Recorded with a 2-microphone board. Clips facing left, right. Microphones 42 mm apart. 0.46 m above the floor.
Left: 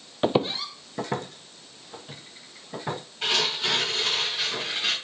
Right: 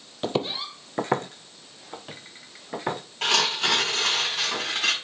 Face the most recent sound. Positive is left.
turn(degrees=-70)  # may be behind; listen again after turning